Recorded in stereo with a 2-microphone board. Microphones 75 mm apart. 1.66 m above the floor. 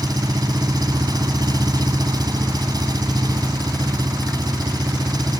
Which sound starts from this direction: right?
An engine running, at 0.0 s.